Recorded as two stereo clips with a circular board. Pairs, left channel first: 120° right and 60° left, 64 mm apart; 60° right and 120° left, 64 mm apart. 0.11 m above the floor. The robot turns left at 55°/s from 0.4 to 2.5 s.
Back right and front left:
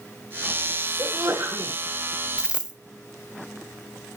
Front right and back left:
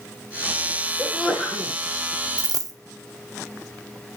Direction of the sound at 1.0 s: 40° left.